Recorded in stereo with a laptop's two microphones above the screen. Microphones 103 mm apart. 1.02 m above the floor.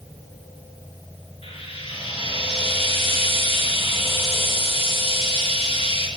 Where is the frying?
75° left (ahead or behind), 4.5 m.